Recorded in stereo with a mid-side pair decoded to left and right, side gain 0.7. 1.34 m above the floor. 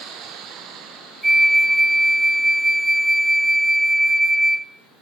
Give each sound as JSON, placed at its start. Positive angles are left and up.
{"t": 1.2, "sound": "a flute", "azimuth_deg": -10, "distance_m": 0.6}